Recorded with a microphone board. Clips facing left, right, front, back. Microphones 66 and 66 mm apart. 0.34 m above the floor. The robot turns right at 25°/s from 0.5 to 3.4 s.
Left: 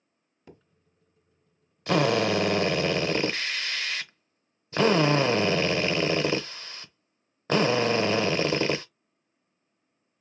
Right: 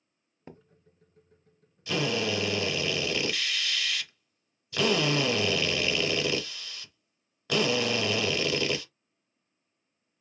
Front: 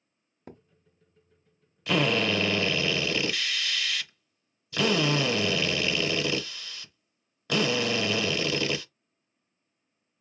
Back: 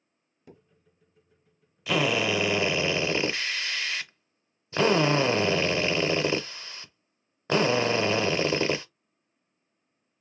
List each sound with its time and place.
0.5 s a thud: 35° right, 0.8 m; by 0.6 s 30° right, 0.8 m
1.9 s a drill: 95° left, 0.6 m; by 8.8 s 130° left, 0.6 m